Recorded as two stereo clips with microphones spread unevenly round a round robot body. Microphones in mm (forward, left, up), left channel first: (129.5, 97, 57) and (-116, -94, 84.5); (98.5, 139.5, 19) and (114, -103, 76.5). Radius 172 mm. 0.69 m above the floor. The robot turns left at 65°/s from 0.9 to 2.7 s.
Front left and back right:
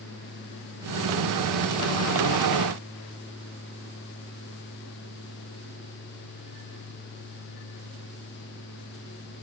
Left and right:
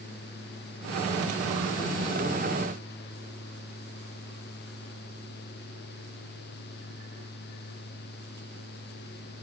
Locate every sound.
Only background noise.